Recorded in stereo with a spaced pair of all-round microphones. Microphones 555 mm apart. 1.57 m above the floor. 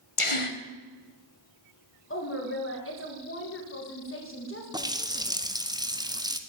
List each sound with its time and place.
0.2 s a gasp: 65° left (ahead or behind), 1.0 m
2.1 s a woman speaking: 20° left (ahead or behind), 2.5 m
4.7 s a running tap: 5° right (ahead or behind), 0.7 m